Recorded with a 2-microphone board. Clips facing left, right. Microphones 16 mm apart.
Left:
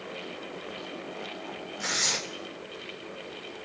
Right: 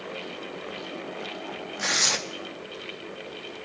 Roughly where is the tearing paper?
Right.